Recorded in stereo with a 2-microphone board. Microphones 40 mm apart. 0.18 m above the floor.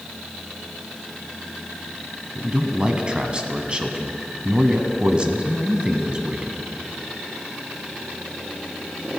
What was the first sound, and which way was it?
A man speaking, 25° right (ahead or behind).